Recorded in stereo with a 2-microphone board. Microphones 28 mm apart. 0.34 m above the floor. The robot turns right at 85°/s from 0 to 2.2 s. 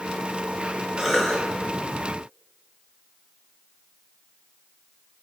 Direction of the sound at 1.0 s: 10° right.